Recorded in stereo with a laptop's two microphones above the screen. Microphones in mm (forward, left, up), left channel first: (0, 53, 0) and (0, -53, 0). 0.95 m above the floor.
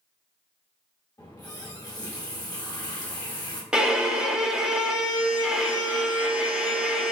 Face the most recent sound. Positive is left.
turn(degrees=-10)  # may be behind; listen again after turning